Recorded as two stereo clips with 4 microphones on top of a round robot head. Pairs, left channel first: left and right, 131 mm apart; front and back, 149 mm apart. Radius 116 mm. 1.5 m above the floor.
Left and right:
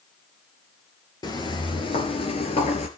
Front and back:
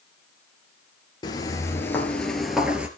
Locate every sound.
1.2 s footsteps: 50° left, 1.8 m; by 2.9 s 105° left, 1.9 m